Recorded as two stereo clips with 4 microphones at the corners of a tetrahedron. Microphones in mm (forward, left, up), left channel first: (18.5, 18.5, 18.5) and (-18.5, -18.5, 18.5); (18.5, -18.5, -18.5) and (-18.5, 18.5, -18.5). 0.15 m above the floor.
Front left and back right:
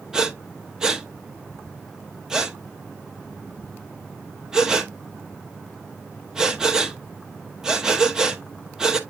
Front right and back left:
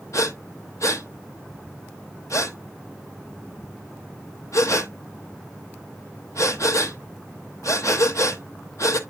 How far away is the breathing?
About 0.9 m.